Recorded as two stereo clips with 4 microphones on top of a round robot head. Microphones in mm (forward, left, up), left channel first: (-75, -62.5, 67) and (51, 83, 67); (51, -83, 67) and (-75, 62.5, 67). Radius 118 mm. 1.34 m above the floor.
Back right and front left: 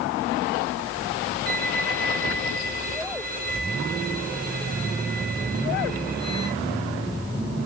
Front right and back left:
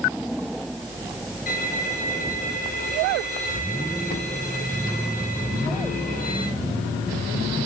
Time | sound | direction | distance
1.5 | a violin | straight ahead | 5 m